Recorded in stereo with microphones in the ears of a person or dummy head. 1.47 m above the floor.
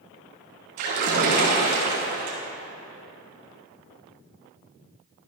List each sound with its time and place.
0.8 s a splash: 50° right (ahead or behind), 3.5 m